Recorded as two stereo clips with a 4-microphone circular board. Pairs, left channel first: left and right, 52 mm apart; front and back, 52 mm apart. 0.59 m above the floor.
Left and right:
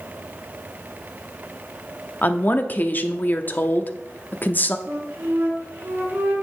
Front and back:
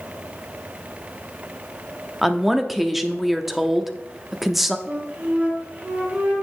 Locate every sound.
2.2 s a woman speaking: 95° left, 0.7 m
4.9 s a flute: 125° right, 5 m